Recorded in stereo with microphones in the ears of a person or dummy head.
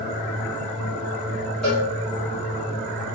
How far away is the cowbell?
About 1.8 m.